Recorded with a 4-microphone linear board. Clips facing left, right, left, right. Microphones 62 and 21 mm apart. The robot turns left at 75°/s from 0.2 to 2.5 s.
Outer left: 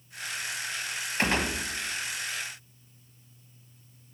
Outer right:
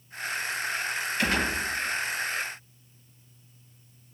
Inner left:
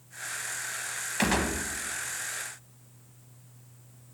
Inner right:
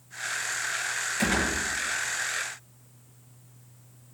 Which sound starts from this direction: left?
A gunshot, at 1.2 s.